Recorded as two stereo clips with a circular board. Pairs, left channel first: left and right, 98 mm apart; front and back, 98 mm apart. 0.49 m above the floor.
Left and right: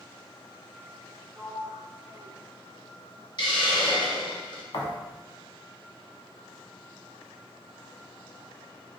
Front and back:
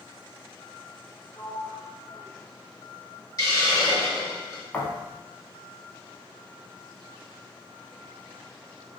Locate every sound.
1.3 s a sliding door: 20° right, 1.8 m
3.4 s a hiss: 55° left, 0.8 m
4.7 s a thud: 75° left, 0.7 m